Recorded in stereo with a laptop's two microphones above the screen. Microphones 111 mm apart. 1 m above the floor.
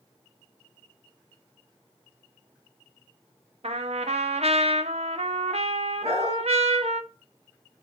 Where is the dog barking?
70° right (ahead or behind), 4.5 m.